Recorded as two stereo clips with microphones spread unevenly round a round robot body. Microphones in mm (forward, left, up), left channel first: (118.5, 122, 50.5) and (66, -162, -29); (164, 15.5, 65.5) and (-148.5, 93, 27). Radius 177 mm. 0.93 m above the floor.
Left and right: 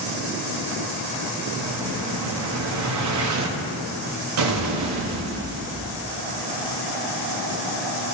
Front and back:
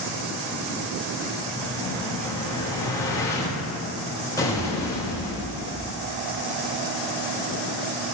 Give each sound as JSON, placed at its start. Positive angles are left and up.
{"t": 1.6, "sound": "an explosion", "azimuth_deg": -95, "distance_m": 1.4}